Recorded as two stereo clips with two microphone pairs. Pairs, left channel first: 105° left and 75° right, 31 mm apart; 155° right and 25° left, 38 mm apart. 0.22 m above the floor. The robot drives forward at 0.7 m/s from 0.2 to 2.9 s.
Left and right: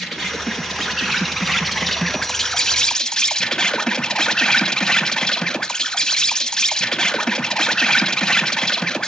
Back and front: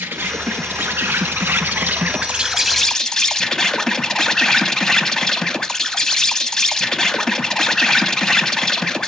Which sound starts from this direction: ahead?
An insect, at 0.0 s.